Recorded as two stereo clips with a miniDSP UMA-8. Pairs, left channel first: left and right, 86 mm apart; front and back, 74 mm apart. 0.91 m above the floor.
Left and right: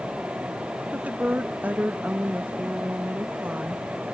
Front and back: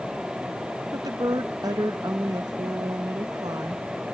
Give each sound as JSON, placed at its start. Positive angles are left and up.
{"t": 0.9, "sound": "a woman speaking", "azimuth_deg": -160}